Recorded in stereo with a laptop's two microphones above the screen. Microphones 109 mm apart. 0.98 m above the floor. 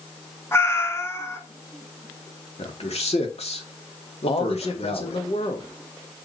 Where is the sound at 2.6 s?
75° left (ahead or behind), 2 m.